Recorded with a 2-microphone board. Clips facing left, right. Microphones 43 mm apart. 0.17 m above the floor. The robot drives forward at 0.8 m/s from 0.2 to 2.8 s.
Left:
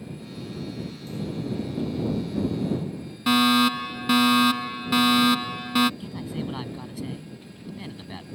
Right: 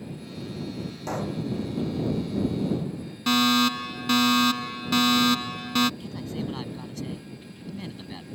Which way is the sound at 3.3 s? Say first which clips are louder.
Left 2 dB; 10° left (ahead or behind).